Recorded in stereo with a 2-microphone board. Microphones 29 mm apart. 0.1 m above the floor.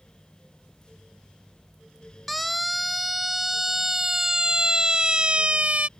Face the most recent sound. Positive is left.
turn(degrees=-50)  # may be behind; listen again after turning